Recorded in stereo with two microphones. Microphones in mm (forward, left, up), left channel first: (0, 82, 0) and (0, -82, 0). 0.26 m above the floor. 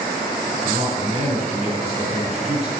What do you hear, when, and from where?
0.6 s a man speaking: 40° right (ahead or behind), 3 m